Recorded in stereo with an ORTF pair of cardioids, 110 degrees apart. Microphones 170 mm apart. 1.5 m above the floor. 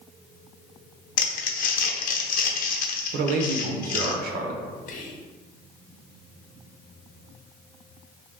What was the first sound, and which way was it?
Crumpling, 60° left.